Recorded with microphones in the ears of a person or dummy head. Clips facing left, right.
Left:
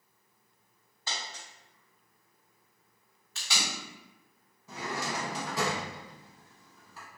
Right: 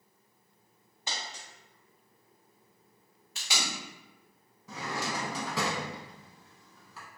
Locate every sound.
1.1 s a dropped coin: 15° right (ahead or behind), 2.0 m
3.4 s tape being pulled: 15° right (ahead or behind), 1.7 m
4.7 s a drawer: 65° right (ahead or behind), 0.9 m